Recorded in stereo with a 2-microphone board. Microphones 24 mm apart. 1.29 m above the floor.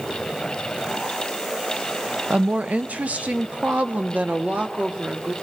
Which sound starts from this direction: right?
A woman speaking, at 2.3 s.